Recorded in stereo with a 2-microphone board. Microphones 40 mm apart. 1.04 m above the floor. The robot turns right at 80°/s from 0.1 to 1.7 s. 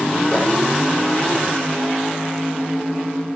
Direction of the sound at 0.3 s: 30° left (ahead or behind).